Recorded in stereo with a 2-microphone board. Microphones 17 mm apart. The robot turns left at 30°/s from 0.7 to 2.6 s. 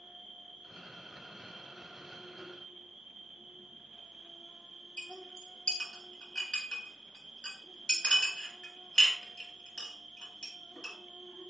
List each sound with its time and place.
0.0 s an insect: 65° right, 0.8 m; by 11.5 s 120° right, 0.8 m
5.0 s a clink: 35° left (ahead or behind), 1.3 m